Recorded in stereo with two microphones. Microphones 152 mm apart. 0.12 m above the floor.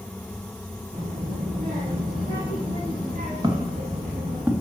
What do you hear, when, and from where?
0.9 s a child speaking: 55° right (ahead or behind), 4.5 m; by 4.4 s 80° right, 4 m
3.4 s footsteps: 30° right (ahead or behind), 2.5 m; by 4.6 s 15° right (ahead or behind), 2 m